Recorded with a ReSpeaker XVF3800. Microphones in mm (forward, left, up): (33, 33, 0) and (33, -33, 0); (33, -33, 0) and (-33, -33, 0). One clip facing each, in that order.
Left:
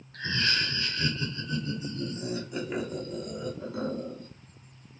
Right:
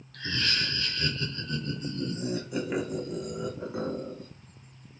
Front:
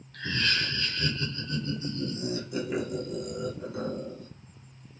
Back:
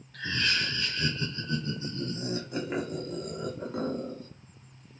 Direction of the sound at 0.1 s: 95° left.